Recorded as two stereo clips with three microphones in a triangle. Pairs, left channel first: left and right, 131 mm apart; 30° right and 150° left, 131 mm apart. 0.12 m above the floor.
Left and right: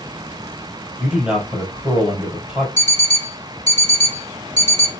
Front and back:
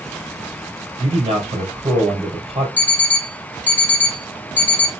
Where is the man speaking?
170° right, 3 m.